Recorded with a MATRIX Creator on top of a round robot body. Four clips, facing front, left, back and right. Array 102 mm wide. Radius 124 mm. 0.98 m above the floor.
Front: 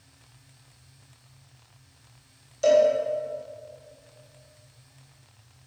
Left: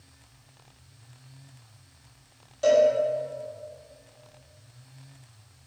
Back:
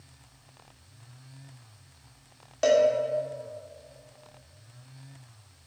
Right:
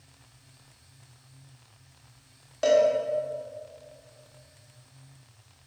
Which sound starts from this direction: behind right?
A cowbell, at 2.6 s.